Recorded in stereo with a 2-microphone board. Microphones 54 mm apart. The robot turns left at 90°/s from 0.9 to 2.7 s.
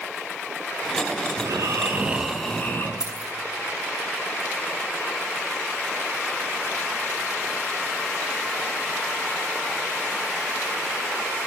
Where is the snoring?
90° right, 7.5 m; by 2.9 s 150° left, 7.5 m.